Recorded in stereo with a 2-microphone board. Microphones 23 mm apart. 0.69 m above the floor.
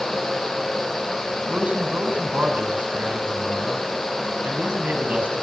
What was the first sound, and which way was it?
A man speaking, 80° right.